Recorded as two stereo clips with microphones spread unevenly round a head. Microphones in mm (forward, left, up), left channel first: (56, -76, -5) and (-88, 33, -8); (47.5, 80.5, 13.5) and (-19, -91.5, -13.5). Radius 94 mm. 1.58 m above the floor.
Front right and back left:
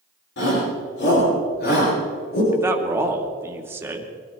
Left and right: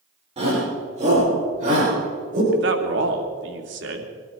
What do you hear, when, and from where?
0.4 s a shout: 55° right, 6.5 m; by 2.4 s 65° right, 8.5 m
2.5 s a man speaking: 140° right, 2.5 m